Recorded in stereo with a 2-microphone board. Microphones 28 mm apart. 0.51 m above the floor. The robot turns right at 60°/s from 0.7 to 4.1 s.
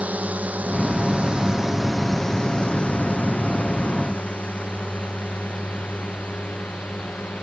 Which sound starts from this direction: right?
A drone, at 0.0 s.